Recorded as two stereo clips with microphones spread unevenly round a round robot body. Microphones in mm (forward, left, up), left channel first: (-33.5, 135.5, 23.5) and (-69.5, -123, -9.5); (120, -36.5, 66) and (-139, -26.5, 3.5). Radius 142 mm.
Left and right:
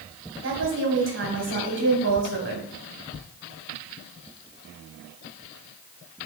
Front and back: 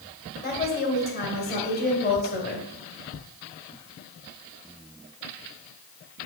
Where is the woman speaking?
60° right, 1.9 m.